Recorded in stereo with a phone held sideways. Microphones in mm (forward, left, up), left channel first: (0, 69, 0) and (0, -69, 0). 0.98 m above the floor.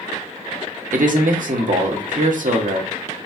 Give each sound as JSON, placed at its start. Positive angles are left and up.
{"t": 0.9, "sound": "a man speaking", "side_deg": -75, "distance_m": 1.2}